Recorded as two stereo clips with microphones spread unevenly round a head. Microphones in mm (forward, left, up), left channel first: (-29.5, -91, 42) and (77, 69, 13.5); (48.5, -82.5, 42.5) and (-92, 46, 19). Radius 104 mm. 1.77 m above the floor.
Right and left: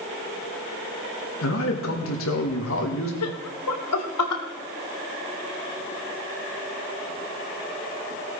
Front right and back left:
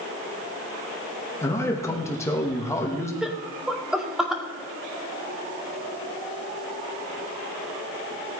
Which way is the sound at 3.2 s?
135° right.